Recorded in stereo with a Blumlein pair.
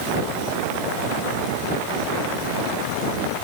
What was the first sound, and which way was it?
Only background noise.